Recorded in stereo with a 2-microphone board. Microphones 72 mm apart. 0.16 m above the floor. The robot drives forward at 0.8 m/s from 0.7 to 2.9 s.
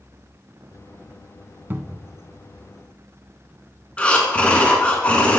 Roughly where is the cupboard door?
Right.